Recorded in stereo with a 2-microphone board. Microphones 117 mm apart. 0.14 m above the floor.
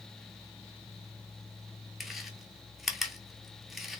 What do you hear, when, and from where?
2.0 s chewing: centre (ahead or behind), 0.7 m